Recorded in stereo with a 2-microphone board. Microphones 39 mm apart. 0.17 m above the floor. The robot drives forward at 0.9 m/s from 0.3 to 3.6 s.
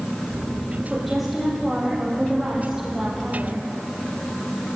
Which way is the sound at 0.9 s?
5° right (ahead or behind).